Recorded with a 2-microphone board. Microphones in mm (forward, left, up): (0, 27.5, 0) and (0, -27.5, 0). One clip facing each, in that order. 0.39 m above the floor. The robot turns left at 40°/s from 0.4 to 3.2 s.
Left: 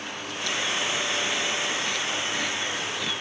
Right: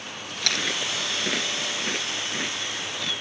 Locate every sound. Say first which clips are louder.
0.4 s chewing: even; 75° right (ahead or behind); by 3.1 s 10° left (ahead or behind)